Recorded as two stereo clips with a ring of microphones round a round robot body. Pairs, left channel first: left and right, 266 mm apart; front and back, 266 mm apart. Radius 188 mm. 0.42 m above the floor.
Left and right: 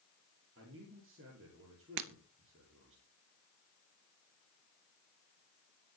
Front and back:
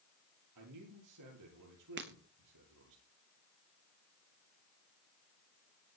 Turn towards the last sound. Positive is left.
turn(degrees=-115)